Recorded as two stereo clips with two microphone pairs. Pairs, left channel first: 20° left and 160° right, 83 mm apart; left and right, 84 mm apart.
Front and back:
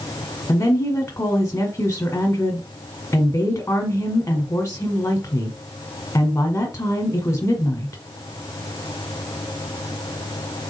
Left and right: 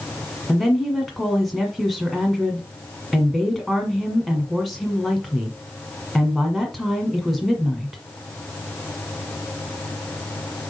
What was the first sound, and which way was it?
A woman speaking, straight ahead.